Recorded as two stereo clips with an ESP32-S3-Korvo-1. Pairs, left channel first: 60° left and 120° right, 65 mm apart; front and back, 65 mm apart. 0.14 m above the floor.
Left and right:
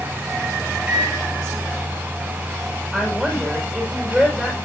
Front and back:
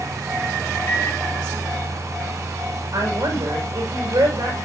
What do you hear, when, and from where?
0.9 s a microwave: 50° right, 2 m
2.9 s a woman speaking: 145° left, 8.5 m